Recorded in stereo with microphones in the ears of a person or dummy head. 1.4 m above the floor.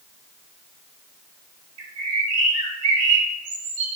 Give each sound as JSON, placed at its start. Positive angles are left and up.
{"t": 1.8, "sound": "a bird", "side_deg": -70, "distance_m": 3.0}